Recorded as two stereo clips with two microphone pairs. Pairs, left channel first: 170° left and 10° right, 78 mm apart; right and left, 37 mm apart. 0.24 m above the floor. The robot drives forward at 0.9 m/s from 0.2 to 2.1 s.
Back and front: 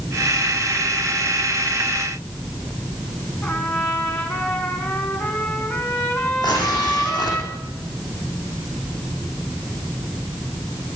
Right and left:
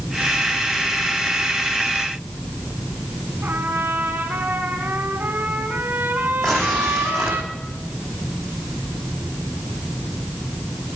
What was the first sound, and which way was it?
A trumpet, 115° left.